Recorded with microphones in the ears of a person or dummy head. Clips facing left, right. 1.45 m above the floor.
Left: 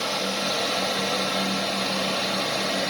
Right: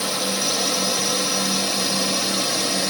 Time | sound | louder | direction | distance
0.0 | a drone | right 2 dB | 70° right (ahead or behind) | ?